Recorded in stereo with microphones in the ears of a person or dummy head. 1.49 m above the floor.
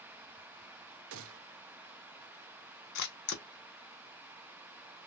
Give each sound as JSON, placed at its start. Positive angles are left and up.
{"t": 1.1, "sound": "a gunshot", "side_deg": -65, "distance_m": 0.6}
{"t": 3.0, "sound": "a camera shutter", "side_deg": 55, "distance_m": 0.8}